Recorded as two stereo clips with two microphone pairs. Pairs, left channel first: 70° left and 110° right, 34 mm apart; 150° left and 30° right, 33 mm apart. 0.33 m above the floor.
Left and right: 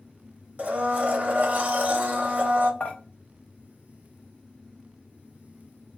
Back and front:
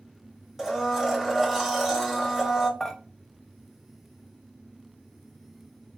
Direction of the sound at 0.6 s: 110° right.